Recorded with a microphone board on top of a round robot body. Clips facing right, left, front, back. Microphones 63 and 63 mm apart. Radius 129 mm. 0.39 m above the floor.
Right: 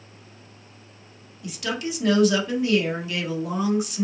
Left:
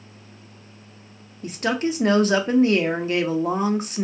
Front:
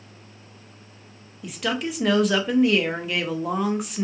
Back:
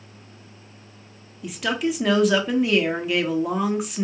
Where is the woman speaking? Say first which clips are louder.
Left 5 dB, back 3 dB; 90° left, 1.2 m.